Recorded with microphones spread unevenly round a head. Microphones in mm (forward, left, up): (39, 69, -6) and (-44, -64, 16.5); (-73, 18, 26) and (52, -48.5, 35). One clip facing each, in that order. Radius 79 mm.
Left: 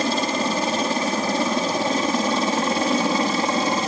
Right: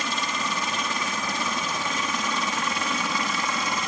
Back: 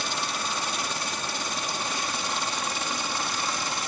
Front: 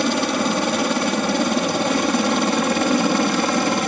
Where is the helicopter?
Straight ahead.